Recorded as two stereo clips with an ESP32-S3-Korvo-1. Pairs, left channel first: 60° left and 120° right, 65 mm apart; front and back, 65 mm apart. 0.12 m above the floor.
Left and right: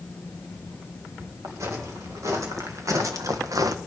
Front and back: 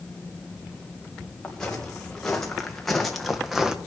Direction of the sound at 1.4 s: 80° right.